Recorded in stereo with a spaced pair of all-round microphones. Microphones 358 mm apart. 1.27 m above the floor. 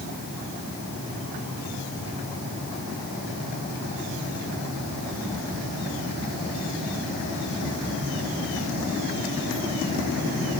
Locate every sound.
Only background noise.